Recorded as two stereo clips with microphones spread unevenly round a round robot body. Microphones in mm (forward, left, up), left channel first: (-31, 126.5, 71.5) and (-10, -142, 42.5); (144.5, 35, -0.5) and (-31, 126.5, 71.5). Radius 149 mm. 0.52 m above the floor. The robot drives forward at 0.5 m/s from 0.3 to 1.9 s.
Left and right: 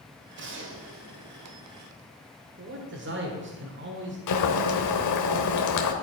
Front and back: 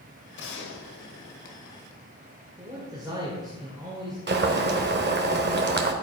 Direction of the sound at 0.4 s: 40° right.